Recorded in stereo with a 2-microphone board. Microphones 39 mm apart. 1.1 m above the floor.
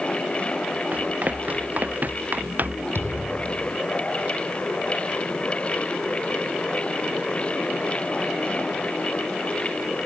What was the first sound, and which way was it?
Running footsteps, 45° right (ahead or behind).